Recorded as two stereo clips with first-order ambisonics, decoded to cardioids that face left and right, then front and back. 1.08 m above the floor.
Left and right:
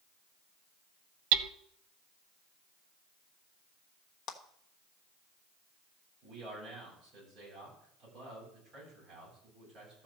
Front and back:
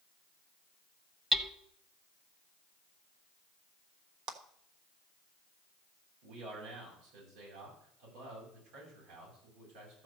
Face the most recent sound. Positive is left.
turn(degrees=-160)